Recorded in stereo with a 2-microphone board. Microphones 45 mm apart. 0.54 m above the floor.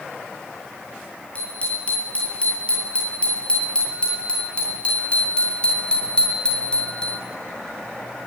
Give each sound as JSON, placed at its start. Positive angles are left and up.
{"t": 1.4, "sound": "a bicycle bell", "side_deg": 30, "distance_m": 9.0}